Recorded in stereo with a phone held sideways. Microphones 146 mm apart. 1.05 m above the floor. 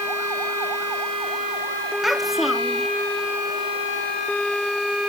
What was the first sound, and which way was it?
A child speaking, centre (ahead or behind).